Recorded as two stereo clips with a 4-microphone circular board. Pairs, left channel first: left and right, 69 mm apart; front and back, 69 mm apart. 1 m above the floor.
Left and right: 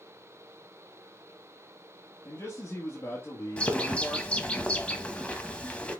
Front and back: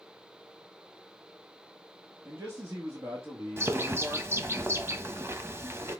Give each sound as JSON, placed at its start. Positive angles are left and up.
{"t": 2.2, "sound": "a man speaking", "azimuth_deg": 140, "distance_m": 2.0}
{"t": 3.6, "sound": "a bird", "azimuth_deg": 155, "distance_m": 1.0}